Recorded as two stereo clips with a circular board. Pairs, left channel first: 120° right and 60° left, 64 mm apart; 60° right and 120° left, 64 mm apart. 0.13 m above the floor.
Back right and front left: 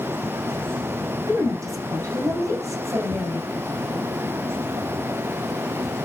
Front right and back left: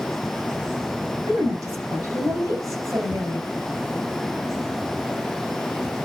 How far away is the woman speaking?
About 7.5 m.